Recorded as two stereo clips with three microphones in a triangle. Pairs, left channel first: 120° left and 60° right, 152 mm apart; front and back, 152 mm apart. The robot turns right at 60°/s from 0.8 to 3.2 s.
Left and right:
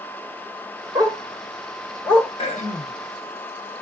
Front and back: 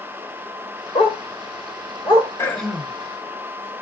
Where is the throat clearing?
75° left, 1.1 m; by 3.0 s 110° left, 1.1 m.